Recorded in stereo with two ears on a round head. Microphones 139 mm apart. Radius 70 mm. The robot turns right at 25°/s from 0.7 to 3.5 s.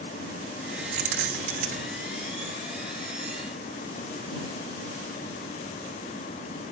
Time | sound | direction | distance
0.9 | keys jangling | 50° right (ahead or behind) | ?